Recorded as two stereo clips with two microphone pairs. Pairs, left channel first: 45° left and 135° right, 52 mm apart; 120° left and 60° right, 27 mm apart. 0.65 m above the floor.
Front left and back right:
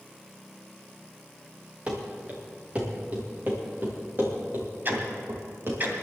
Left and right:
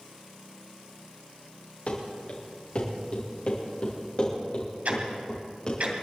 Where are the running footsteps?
160° left, 4 m; by 5.8 s 175° right, 5 m.